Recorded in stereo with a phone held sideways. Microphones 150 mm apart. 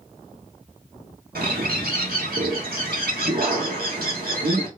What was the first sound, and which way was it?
A bird, 85° right.